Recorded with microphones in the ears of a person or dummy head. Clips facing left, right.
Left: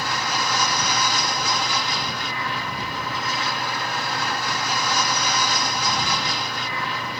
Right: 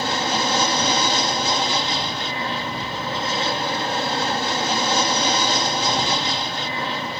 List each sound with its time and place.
0.0 s an aircraft: 30° right (ahead or behind)